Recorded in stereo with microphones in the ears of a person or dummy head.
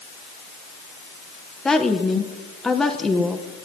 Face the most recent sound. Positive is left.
turn(degrees=5)  # may be behind; listen again after turning